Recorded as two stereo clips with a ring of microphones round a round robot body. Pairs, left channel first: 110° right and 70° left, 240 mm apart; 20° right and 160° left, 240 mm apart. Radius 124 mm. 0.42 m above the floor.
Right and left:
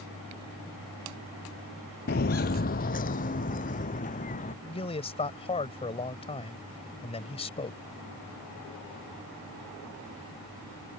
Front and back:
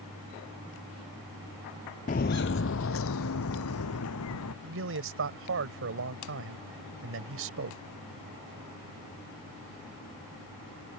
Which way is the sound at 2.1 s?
70° right.